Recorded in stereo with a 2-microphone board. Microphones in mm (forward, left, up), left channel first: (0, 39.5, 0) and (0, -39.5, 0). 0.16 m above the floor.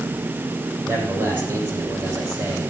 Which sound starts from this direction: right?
A man speaking, at 0.8 s.